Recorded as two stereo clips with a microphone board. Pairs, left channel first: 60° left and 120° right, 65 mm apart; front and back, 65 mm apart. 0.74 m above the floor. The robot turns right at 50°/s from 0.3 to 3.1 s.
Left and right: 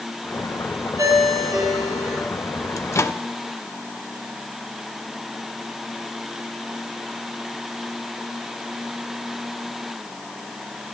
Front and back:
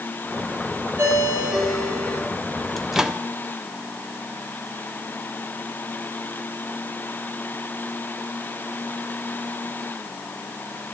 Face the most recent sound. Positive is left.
turn(degrees=105)